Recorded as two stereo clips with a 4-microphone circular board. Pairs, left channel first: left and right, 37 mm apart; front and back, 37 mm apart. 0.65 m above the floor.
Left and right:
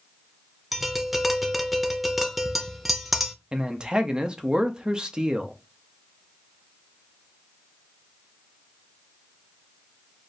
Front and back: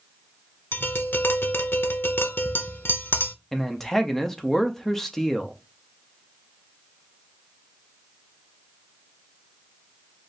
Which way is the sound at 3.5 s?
60° right.